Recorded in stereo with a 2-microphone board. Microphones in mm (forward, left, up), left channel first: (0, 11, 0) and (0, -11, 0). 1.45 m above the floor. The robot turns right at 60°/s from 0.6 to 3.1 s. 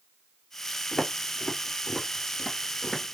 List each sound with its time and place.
0.9 s footsteps: 35° left (ahead or behind), 1.7 m; by 3.1 s 5° left (ahead or behind), 1.4 m